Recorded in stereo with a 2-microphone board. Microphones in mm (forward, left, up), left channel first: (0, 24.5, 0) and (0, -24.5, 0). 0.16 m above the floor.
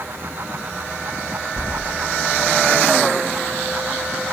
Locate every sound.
1.6 s keys jangling: 35° left (ahead or behind), 1.1 m